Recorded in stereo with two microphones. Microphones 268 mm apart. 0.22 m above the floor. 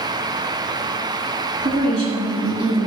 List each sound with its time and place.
1.6 s a woman speaking: 20° right (ahead or behind), 3 m